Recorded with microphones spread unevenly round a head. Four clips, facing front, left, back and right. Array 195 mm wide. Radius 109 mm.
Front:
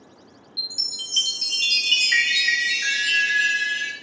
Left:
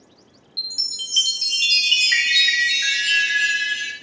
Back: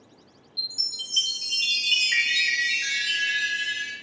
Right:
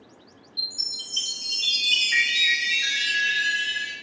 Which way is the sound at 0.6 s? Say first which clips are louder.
Left 4 dB, front 1 dB; 55° left.